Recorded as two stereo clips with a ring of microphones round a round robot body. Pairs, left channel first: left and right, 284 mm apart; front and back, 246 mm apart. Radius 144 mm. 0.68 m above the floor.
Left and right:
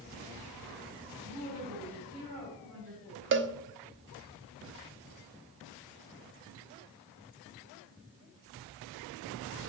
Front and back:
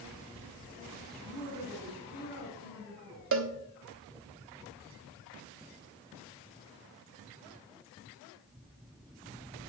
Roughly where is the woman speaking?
Right.